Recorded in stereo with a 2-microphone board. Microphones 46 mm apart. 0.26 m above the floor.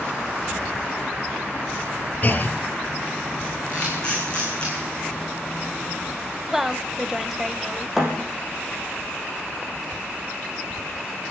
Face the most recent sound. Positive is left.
turn(degrees=-10)  # may be behind; listen again after turning